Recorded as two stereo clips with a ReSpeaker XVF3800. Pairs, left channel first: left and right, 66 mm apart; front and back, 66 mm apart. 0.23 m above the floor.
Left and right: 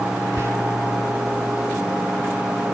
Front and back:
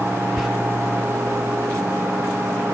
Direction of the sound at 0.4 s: 100° right.